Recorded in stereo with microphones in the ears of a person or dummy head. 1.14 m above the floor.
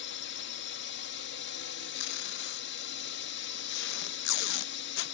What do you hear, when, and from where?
0.0 s a drone: 65° left (ahead or behind)
1.9 s tape being pulled: 70° left (ahead or behind)